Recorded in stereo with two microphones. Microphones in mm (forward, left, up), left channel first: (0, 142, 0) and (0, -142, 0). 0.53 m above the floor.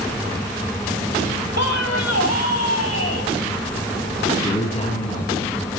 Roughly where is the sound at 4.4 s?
Left.